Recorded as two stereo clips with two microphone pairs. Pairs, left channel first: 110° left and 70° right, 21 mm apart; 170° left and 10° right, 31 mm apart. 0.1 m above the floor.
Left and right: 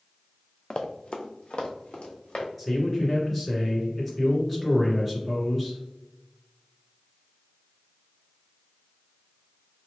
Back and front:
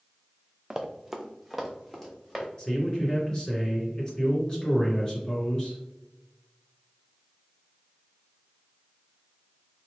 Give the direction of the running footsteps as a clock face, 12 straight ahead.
10 o'clock.